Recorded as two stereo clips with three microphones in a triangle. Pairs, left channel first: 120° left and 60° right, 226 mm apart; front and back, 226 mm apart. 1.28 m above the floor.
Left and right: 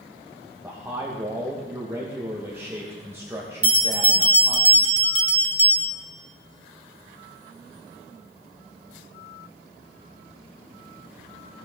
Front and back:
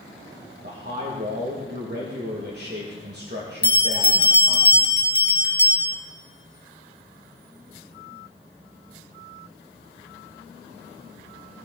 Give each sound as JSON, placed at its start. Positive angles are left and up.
{"t": 0.6, "sound": "a man speaking", "azimuth_deg": -140, "distance_m": 1.3}
{"t": 3.6, "sound": "a bell", "azimuth_deg": -40, "distance_m": 1.3}